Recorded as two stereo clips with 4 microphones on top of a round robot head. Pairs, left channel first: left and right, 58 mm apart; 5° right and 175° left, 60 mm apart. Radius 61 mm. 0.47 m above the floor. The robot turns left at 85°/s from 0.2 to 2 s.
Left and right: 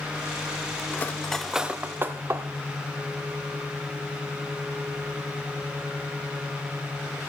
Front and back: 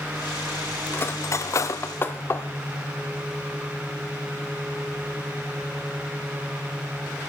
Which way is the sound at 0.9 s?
45° left.